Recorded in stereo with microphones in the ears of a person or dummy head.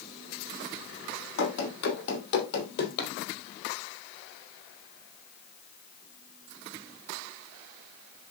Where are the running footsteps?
60° left (ahead or behind), 3 m; by 3.1 s 55° left (ahead or behind), 3 m.